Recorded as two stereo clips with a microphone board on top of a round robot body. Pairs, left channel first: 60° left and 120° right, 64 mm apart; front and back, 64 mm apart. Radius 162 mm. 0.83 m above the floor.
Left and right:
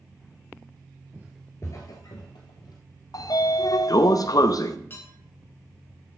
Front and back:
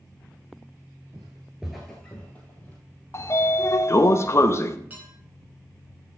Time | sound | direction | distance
1.1 | footsteps | 165° right | 0.9 m
3.1 | a sliding door | 45° left | 0.8 m
4.9 | dishes clattering | 115° left | 4 m